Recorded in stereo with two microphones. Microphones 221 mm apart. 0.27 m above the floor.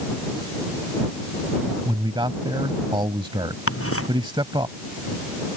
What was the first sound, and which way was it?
A man speaking, 20° right (ahead or behind).